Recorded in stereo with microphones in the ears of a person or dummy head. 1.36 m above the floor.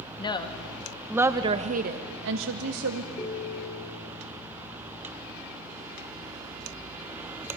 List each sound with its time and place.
0.2 s a woman speaking: 20° left (ahead or behind), 1.7 m; by 3.1 s 85° right, 1.9 m
3.2 s a ringtone: 25° left (ahead or behind), 3 m